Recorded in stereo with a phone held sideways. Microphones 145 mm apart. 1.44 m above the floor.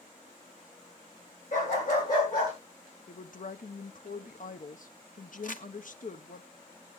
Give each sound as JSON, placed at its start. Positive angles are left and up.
{"t": 1.5, "sound": "a dog barking", "side_deg": 60, "distance_m": 9.5}
{"t": 3.1, "sound": "a woman speaking", "side_deg": 65, "distance_m": 0.8}
{"t": 5.4, "sound": "crumpling", "side_deg": 65, "distance_m": 1.0}